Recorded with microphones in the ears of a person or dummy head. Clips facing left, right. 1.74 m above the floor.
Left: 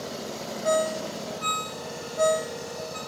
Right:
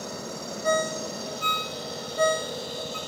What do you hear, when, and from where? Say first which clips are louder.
0.6 s a ringtone: left 2 dB; 15° right (ahead or behind), 1.1 m